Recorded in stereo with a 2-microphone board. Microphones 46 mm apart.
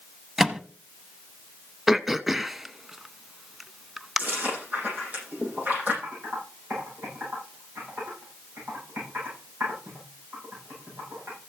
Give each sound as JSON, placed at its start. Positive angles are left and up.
{"t": 0.4, "sound": "a microwave", "side_deg": -5, "distance_m": 0.8}
{"t": 1.9, "sound": "throat clearing", "side_deg": -5, "distance_m": 0.5}
{"t": 4.2, "sound": "chewing", "side_deg": -40, "distance_m": 9.0}
{"t": 6.0, "sound": "typing on a keyboard", "side_deg": -45, "distance_m": 10.0}